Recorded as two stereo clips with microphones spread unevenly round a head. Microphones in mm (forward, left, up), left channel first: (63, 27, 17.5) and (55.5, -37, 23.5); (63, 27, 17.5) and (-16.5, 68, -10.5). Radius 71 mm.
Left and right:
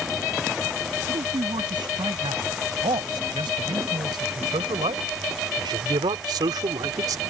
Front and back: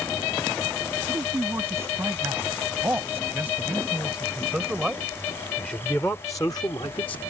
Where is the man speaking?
135° right; by 7.2 s 85° right.